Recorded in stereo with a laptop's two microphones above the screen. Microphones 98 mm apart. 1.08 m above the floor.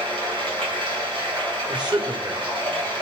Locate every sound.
0.0 s running water: 70° right (ahead or behind), 3 m
1.7 s a man speaking: 50° right (ahead or behind), 3 m